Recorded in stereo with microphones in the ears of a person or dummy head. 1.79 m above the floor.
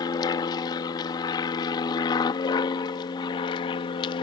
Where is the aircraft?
20° left (ahead or behind); by 4.2 s 25° left (ahead or behind).